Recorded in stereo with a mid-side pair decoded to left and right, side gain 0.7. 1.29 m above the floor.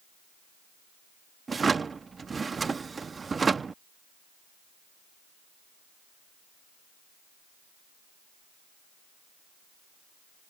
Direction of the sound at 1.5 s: 20° right.